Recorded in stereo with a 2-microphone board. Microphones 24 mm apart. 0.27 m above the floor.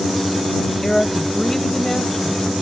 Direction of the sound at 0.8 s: 20° left (ahead or behind).